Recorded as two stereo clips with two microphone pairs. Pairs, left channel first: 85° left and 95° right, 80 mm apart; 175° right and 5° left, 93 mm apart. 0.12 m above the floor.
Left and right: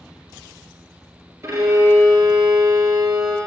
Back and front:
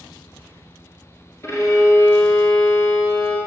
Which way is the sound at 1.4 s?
130° right.